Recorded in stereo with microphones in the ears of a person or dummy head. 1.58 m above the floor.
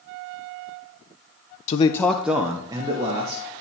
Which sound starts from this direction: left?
A man speaking, at 1.7 s.